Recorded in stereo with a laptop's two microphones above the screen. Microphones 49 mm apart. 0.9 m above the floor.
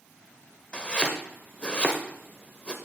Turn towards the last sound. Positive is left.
turn(degrees=20)  # may be behind; listen again after turning